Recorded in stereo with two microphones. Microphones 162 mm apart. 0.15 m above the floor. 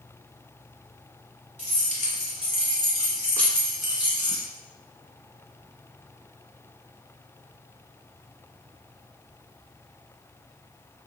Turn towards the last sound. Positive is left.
turn(degrees=-20)  # may be behind; listen again after turning